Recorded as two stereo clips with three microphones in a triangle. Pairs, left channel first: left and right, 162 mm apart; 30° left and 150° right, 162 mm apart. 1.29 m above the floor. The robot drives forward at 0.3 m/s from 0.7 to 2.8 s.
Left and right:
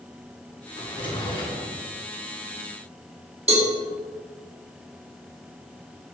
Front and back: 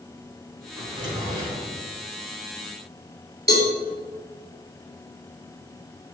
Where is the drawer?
145° left, 3.5 m; by 1.7 s 150° left, 3.5 m.